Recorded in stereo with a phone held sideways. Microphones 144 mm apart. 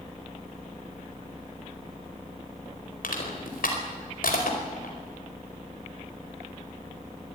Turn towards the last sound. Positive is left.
turn(degrees=85)